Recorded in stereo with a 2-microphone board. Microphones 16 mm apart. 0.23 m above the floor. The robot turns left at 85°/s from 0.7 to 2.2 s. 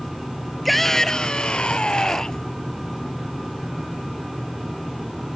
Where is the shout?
Straight behind; by 2.5 s 50° left.